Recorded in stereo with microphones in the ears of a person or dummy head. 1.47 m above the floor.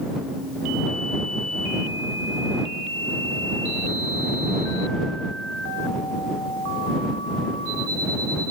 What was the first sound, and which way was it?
Only background noise.